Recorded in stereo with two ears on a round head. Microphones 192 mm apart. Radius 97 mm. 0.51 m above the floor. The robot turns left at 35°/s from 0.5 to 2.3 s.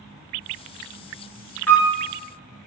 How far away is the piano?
About 1.3 m.